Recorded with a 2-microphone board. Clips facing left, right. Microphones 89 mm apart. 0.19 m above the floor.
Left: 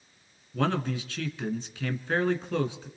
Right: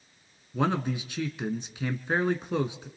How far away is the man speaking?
About 1.8 m.